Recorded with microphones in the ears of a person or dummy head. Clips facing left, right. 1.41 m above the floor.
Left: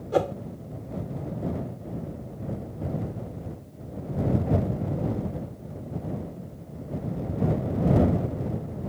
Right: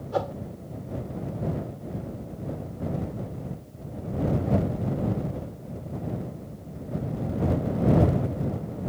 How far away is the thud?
No thud in this recording.